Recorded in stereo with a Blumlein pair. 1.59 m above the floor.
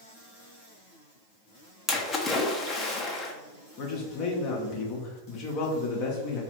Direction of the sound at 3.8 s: 40° left.